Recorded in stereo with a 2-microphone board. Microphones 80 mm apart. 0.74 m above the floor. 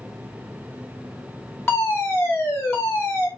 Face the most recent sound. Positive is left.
turn(degrees=30)  # may be behind; listen again after turning